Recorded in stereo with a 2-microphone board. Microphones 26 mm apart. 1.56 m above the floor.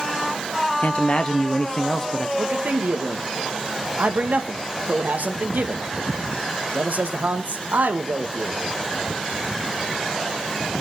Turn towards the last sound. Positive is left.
turn(degrees=-80)